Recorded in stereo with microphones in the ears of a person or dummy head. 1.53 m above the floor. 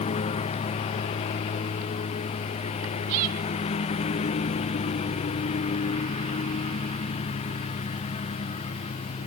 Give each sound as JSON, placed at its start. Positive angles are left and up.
{"t": 0.0, "sound": "a lawn mower", "side_deg": 30}